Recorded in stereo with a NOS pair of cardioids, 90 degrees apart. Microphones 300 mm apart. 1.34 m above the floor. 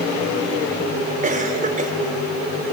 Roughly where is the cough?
Ahead right.